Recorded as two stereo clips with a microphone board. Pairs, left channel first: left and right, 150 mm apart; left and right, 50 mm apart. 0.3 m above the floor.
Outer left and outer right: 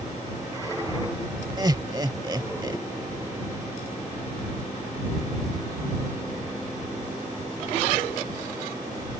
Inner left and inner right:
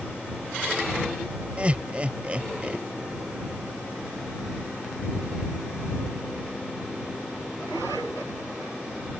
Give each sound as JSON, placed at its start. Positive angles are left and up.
{"t": 1.6, "sound": "laughter", "side_deg": -30}